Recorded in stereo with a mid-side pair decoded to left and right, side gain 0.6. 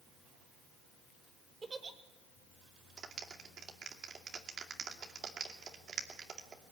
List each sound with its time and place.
1.6 s a giggle: 25° right, 2.5 m
3.0 s a clap: 40° right, 2.5 m